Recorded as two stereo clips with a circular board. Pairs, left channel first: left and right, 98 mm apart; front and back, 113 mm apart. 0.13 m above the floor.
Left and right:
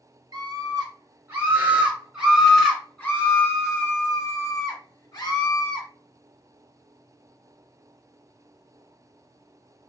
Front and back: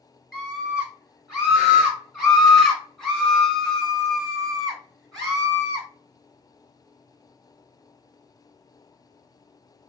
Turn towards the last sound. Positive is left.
turn(degrees=85)